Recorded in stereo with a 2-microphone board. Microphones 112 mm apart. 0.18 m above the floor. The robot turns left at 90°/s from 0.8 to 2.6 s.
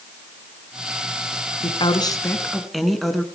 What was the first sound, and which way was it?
A woman speaking, 90° left.